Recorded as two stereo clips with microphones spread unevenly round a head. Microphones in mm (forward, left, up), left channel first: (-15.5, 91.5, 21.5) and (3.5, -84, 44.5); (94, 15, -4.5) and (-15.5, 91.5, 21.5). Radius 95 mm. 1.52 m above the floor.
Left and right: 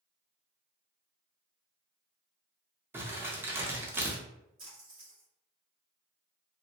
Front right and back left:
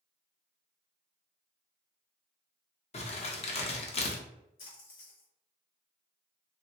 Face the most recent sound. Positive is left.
turn(degrees=-20)